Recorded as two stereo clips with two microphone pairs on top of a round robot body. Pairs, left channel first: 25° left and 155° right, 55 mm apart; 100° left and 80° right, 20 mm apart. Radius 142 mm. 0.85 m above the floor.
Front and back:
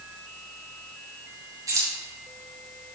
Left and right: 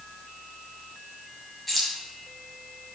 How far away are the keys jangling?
About 2 m.